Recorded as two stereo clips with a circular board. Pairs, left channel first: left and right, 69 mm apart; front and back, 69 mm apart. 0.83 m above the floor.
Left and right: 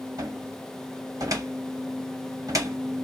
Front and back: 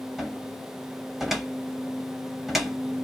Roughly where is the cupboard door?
Right.